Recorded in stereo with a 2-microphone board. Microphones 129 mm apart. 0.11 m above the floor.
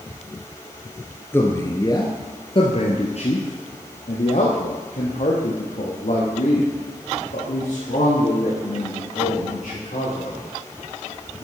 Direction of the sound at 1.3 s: 15° left (ahead or behind).